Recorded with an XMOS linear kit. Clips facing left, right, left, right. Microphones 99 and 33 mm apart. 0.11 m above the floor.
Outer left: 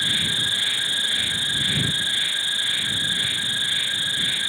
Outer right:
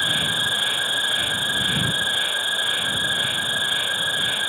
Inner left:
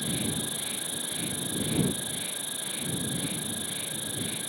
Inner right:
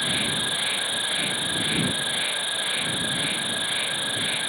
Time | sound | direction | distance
0.0 | an insect | 50° right (ahead or behind) | ?